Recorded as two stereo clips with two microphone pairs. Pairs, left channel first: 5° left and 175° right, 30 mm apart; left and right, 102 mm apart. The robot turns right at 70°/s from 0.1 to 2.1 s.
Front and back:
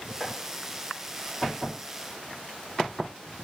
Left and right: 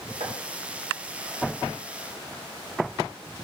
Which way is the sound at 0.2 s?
75° right.